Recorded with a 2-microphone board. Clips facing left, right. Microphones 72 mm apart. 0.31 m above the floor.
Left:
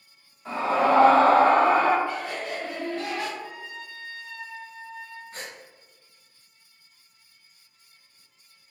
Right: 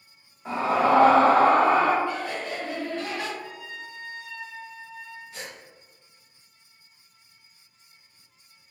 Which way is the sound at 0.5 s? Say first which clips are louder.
Even; 20° right (ahead or behind).